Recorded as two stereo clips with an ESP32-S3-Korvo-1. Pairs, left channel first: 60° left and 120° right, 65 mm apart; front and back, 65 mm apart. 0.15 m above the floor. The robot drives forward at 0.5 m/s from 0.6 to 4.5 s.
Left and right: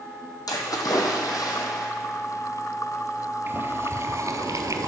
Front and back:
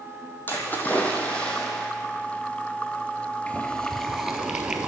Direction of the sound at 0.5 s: 60° left.